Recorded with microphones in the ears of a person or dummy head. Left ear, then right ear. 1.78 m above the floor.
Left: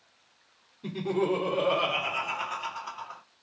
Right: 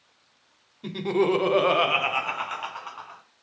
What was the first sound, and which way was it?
Laughter, 20° right (ahead or behind).